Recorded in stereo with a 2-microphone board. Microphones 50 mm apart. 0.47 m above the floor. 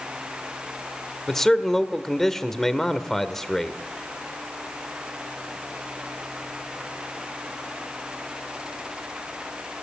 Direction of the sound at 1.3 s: 5° left (ahead or behind).